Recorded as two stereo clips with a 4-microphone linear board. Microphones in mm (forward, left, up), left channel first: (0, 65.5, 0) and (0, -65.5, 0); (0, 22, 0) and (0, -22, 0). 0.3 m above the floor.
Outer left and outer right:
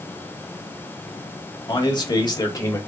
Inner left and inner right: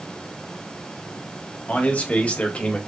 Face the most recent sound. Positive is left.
turn(degrees=25)  # may be behind; listen again after turning